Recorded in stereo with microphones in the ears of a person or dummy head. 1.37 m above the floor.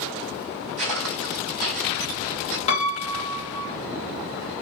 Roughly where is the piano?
Left.